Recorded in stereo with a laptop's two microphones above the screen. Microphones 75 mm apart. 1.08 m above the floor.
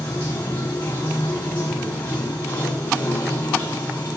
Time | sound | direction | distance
0.0 | running water | 30° left (ahead or behind) | 3 m